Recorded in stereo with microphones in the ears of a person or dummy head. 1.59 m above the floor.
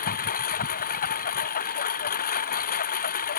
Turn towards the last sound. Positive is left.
turn(degrees=45)  # may be behind; listen again after turning